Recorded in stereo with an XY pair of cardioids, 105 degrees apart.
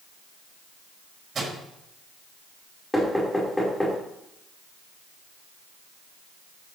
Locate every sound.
1.4 s a microwave: 40° right, 6.5 m
2.9 s knocking: 10° left, 4.5 m